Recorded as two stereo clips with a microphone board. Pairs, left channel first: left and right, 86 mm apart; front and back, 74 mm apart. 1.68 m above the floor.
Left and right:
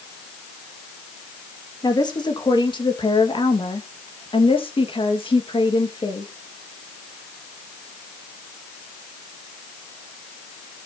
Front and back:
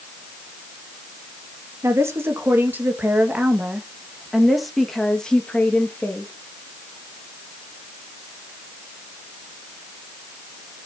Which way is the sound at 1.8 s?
130° left.